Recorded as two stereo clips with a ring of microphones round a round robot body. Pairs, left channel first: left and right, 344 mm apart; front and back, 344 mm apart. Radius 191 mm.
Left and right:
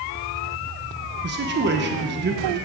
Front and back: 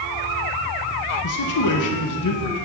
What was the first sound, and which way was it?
A man speaking, 30° right.